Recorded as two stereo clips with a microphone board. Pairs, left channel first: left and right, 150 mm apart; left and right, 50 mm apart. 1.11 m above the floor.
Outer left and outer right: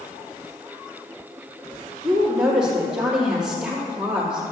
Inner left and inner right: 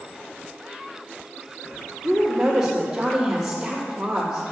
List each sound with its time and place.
2.0 s a woman speaking: 5° right (ahead or behind), 2.5 m